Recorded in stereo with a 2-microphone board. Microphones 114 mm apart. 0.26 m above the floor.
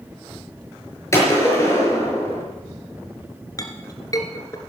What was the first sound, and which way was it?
A gunshot, 25° left (ahead or behind).